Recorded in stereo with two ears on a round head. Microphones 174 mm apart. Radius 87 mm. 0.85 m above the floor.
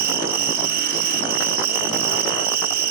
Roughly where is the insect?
Right.